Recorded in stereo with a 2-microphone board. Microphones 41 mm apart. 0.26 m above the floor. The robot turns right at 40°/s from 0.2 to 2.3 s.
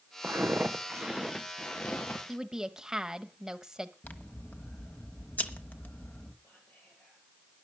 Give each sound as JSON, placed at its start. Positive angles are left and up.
{"t": 0.2, "sound": "footsteps", "side_deg": -80, "distance_m": 1.5}
{"t": 2.3, "sound": "a woman speaking", "side_deg": -15, "distance_m": 1.0}
{"t": 4.0, "sound": "scissors", "side_deg": 45, "distance_m": 1.2}
{"t": 6.4, "sound": "whispering", "side_deg": 55, "distance_m": 8.0}